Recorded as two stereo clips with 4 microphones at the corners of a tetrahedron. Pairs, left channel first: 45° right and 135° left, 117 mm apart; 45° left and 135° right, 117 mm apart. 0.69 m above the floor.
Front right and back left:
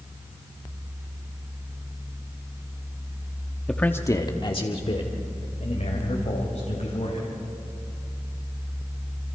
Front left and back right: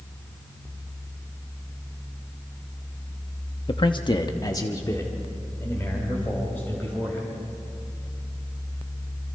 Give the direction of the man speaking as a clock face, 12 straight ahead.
11 o'clock.